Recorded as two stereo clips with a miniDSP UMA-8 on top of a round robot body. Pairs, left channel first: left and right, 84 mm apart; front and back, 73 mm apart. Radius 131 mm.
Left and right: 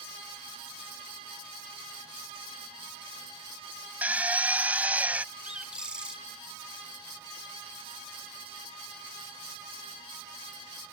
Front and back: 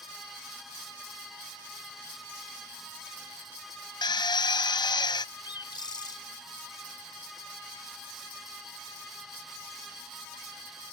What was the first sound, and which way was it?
A drill, 15° right.